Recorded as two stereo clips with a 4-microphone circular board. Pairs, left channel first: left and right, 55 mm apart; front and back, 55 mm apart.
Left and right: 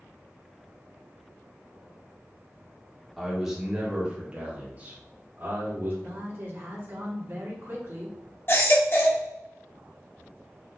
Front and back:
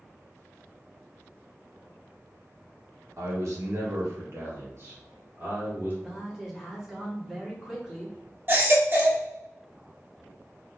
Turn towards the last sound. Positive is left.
turn(degrees=130)